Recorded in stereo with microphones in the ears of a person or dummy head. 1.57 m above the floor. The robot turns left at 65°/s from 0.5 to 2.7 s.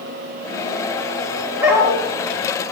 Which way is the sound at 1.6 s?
10° right (ahead or behind).